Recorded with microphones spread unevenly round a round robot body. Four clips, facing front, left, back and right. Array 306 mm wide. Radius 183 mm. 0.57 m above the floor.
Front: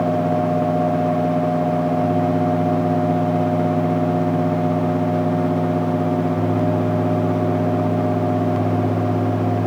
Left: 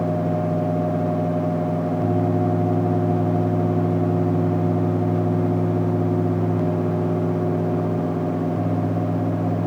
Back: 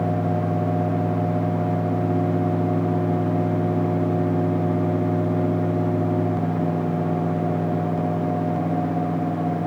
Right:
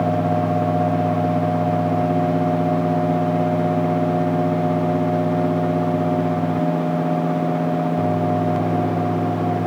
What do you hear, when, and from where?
Only background noise.